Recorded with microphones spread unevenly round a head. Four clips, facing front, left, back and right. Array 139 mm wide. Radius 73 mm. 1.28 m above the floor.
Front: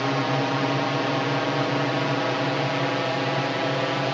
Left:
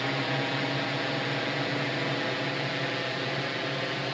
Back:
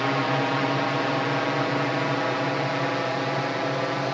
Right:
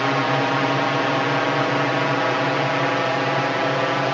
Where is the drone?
80° right; by 4.1 s 70° right.